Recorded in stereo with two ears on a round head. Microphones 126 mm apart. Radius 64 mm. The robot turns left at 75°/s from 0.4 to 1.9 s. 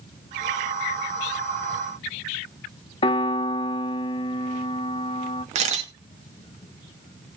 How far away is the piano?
About 0.6 m.